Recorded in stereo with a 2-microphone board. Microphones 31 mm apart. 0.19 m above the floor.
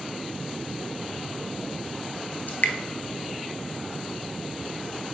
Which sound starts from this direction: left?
Dripping, at 2.5 s.